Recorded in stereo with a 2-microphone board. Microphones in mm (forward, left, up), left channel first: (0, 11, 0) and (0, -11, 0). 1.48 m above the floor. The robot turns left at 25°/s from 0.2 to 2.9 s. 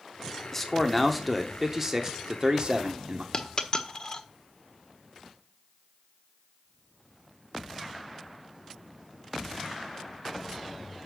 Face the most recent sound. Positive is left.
turn(degrees=35)  # may be behind; listen again after turning